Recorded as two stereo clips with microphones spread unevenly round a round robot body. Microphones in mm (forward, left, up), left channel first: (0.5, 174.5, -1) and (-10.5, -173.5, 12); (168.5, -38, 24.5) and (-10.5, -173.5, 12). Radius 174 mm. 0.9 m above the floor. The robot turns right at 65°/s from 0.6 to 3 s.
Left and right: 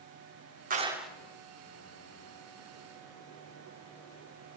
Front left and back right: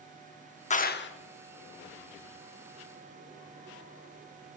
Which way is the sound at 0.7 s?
25° right.